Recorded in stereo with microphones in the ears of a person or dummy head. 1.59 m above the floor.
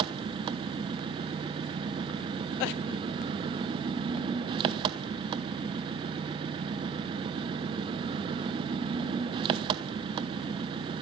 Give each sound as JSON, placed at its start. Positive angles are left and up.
{"t": 0.0, "sound": "an engine running", "side_deg": -25, "distance_m": 0.9}